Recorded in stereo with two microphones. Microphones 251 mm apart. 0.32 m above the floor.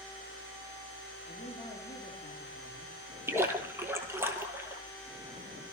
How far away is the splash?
About 1.4 m.